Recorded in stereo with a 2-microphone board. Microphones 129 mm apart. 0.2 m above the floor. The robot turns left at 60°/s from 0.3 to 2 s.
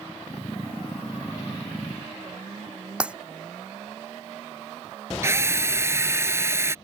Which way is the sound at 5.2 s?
20° right (ahead or behind).